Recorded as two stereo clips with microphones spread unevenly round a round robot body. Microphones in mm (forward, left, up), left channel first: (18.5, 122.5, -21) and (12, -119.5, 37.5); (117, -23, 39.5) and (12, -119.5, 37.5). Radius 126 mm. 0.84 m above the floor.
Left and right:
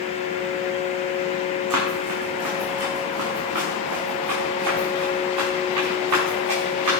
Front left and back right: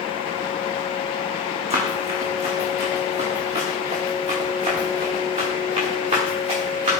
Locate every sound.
1.7 s running footsteps: 95° right, 4.5 m; by 7.0 s 105° right, 8 m